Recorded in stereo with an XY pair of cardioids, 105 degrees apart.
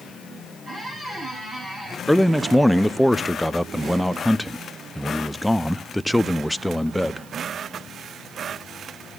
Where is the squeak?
20° right, 9.5 m.